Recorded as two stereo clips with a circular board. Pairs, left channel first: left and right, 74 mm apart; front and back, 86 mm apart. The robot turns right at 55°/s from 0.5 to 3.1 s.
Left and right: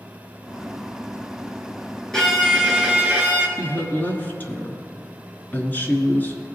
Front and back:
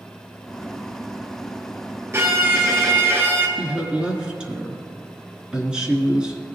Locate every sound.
2.1 s a violin: 165° left, 1.4 m; by 3.5 s 140° right, 1.4 m
3.6 s a woman speaking: 115° left, 1.2 m